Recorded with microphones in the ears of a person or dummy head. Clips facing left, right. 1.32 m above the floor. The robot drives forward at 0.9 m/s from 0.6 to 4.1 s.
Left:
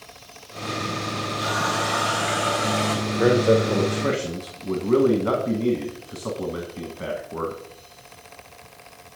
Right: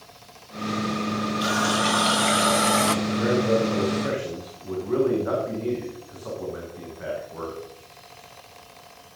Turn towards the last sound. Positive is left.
turn(degrees=50)  # may be behind; listen again after turning